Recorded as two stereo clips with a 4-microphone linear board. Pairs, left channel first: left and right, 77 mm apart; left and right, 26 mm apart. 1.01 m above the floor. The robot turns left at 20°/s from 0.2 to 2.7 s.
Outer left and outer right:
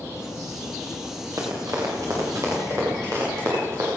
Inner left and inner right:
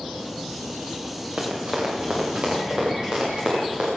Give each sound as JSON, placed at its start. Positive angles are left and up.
{"t": 1.4, "sound": "running footsteps", "side_deg": -50, "distance_m": 8.0}